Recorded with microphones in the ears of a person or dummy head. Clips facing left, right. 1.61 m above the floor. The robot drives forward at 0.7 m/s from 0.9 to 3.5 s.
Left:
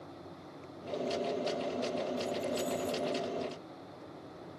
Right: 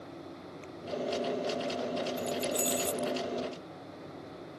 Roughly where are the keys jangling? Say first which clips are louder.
Right 1 dB; right.